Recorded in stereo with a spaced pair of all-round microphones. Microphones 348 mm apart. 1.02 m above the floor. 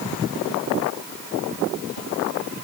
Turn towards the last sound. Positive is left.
No sound to turn to.